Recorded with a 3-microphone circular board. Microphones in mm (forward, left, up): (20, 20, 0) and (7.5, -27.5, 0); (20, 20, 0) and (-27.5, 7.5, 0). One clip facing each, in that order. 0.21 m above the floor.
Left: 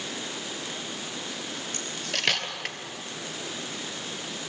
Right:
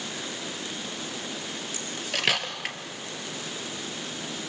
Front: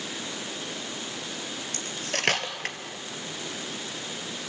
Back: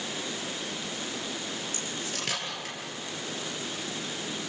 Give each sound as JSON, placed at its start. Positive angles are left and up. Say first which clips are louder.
{"t": 1.7, "sound": "cutlery clinking", "louder": "right 2 dB, front 3 dB", "azimuth_deg": -20, "distance_m": 2.5}